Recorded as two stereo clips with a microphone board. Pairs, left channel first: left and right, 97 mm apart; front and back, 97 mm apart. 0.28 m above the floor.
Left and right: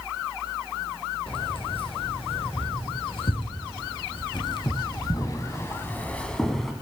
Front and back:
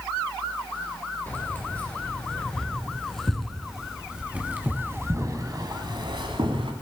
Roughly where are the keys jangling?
Left.